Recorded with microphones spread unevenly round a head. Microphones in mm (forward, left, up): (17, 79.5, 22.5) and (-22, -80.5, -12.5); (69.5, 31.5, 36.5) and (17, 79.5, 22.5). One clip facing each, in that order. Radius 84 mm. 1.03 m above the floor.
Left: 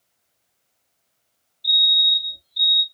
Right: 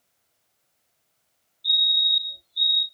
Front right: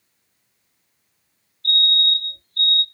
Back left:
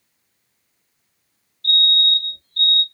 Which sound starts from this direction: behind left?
A fire alarm, at 1.6 s.